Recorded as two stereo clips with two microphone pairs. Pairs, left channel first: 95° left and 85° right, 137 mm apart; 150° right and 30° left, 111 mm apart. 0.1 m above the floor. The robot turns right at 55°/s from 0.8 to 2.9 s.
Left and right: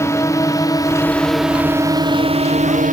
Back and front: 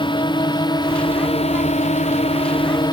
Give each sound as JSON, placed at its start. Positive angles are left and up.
{"t": 0.0, "sound": "a drone", "azimuth_deg": 165}